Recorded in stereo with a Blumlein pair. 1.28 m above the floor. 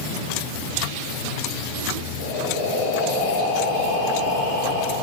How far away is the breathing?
About 3 m.